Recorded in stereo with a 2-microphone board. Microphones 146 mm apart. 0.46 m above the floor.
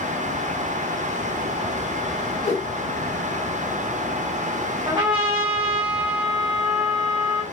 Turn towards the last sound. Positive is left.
turn(degrees=-30)  # may be behind; listen again after turning